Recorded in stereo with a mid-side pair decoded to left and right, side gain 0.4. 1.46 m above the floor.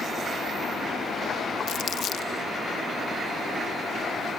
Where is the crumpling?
70° left.